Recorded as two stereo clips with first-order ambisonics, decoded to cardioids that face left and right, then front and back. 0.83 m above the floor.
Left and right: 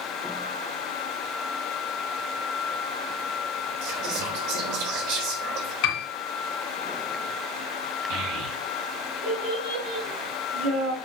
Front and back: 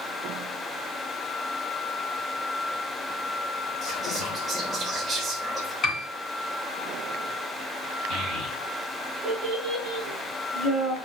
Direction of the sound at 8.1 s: 115° right.